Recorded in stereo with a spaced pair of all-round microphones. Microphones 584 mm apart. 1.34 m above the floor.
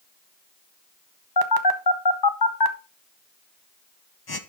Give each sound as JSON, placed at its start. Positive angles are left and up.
{"t": 1.4, "sound": "a phone buzzing", "side_deg": 40, "distance_m": 0.8}